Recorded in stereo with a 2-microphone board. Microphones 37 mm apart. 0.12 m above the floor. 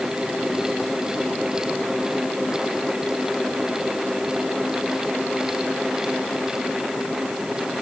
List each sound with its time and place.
Only background noise.